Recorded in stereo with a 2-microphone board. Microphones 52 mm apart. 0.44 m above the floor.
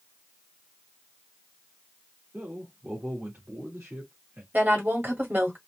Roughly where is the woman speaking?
Right.